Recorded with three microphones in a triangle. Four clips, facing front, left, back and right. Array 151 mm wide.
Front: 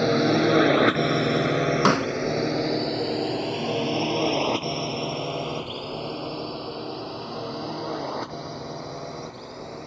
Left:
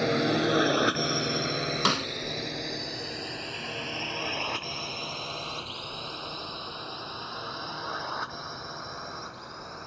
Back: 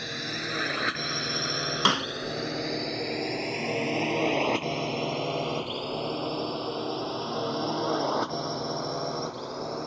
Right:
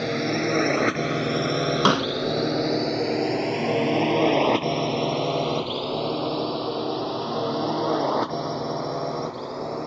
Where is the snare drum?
45° right.